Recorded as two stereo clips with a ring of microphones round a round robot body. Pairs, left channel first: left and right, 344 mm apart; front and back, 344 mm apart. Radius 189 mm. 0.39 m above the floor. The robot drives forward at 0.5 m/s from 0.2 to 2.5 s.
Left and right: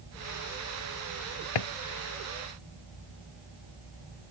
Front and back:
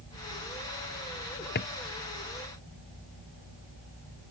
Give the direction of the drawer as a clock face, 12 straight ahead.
10 o'clock.